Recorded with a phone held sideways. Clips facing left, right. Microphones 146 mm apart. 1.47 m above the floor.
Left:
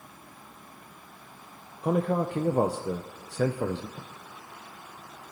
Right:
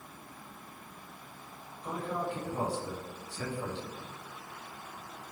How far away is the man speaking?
About 0.6 m.